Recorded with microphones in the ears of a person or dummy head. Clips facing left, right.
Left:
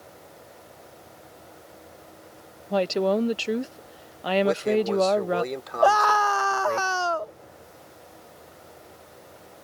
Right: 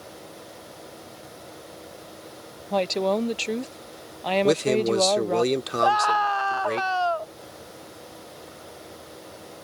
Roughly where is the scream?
Left.